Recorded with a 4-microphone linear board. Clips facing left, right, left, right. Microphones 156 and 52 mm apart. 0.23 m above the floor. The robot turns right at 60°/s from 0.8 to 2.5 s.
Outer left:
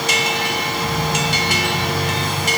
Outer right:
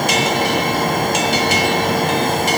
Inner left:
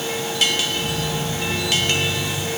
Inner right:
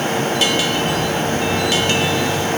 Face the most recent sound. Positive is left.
No sound to turn to.